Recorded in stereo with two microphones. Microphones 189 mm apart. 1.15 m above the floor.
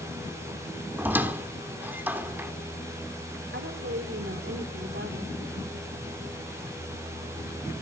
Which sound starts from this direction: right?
A woman speaking, at 3.5 s.